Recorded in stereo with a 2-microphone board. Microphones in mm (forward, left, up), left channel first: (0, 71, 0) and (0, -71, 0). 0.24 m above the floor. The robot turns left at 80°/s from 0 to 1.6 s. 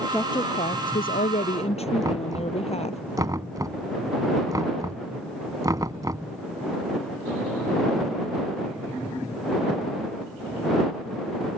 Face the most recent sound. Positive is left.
turn(degrees=-25)  # may be behind; listen again after turning